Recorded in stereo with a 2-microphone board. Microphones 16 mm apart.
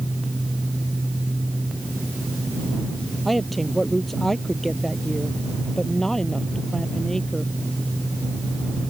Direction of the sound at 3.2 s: 10° left (ahead or behind).